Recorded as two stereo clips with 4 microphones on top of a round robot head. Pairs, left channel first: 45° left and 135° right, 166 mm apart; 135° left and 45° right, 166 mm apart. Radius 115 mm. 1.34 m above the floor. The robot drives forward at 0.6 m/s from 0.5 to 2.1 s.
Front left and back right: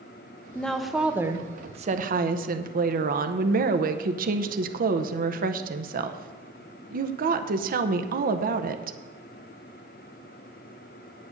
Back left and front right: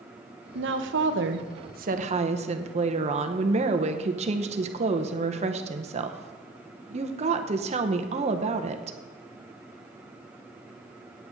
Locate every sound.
0.6 s a woman speaking: 40° right, 1.1 m; by 9.0 s 100° right, 0.7 m